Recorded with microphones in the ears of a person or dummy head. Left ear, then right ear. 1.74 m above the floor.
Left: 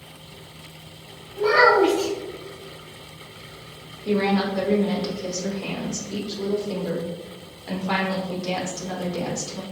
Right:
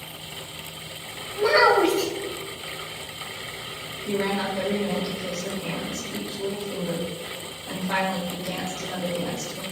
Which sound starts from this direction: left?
A woman speaking, at 4.0 s.